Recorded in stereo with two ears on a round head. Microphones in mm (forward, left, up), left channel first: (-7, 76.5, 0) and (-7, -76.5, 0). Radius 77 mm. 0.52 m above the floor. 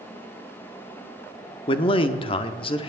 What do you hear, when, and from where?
1.7 s a man speaking: 30° left (ahead or behind), 0.7 m